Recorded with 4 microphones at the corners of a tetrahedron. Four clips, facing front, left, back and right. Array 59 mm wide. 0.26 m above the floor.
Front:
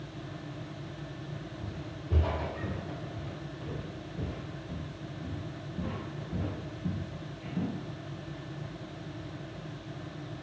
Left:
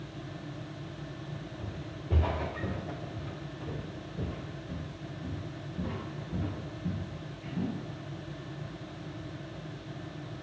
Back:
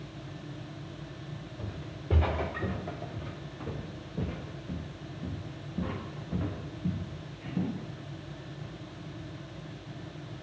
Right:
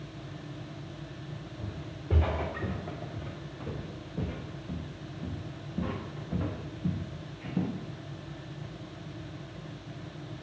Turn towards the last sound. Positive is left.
turn(degrees=-100)